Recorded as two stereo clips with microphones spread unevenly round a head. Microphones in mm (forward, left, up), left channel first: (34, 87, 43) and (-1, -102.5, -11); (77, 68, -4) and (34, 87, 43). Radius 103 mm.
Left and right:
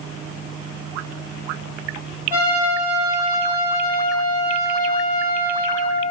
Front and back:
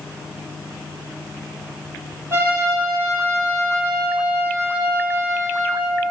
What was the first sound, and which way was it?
A trumpet, 175° left.